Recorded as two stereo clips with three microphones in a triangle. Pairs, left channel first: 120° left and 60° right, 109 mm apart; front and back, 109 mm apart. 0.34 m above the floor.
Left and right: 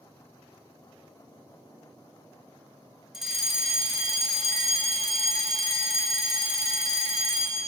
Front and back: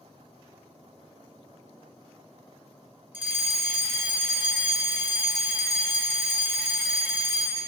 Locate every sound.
3.1 s a fire alarm: 140° right, 1.8 m